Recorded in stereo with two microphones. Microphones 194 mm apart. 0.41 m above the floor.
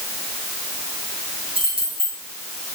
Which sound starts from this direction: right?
Keys jangling, at 1.6 s.